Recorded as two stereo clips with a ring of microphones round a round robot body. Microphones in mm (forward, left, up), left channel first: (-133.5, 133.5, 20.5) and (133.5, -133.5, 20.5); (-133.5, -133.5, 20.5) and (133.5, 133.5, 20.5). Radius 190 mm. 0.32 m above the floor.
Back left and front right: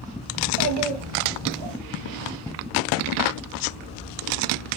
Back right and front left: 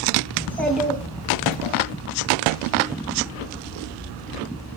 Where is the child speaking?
55° right, 1.0 m; by 1.8 s 30° right, 1.5 m.